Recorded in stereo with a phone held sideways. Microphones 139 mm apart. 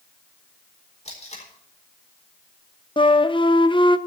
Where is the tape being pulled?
50° left (ahead or behind), 4 m.